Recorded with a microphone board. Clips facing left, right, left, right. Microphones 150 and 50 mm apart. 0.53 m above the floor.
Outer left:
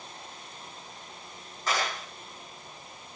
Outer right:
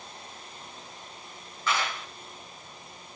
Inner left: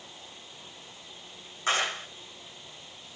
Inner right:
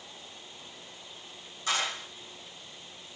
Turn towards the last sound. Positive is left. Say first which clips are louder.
# even, inner left 3 dB
turn(degrees=40)  # may be behind; listen again after turning